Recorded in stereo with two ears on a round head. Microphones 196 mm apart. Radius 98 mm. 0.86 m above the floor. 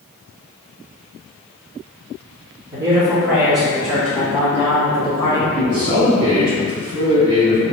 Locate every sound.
2.7 s a man speaking: 20° right (ahead or behind), 1.3 m; by 5.4 s 20° left (ahead or behind), 2 m
5.5 s a man speaking: 35° right (ahead or behind), 1.6 m